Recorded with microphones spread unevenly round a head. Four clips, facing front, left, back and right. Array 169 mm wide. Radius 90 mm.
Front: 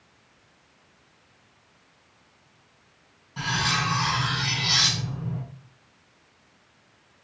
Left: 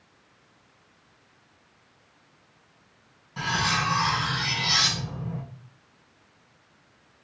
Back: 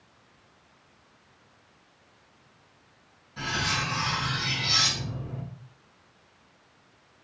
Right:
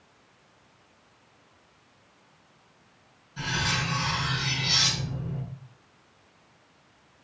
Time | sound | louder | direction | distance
3.4 | cutlery clinking | left 4 dB, front 3 dB | 65° left | 6 m